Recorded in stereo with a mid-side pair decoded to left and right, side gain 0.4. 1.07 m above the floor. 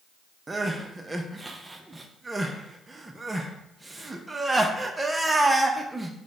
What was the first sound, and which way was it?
Crying, 20° right.